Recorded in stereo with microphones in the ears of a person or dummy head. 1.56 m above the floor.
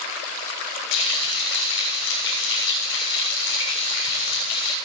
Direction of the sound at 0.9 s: 70° left (ahead or behind).